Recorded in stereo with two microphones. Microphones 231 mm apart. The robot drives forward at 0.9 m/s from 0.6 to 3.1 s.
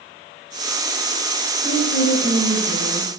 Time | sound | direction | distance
1.6 | a woman speaking | 75° left (ahead or behind) | 3 m